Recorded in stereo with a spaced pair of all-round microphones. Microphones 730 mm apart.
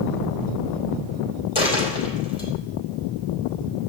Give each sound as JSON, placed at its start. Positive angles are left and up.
{"t": 1.6, "sound": "a dropped coin", "side_deg": 40, "distance_m": 3.0}